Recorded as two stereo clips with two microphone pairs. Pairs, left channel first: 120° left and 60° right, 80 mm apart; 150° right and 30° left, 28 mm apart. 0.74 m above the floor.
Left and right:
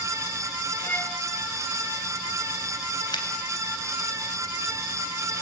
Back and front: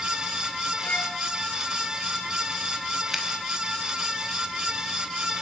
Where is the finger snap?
110° left, 4.5 m.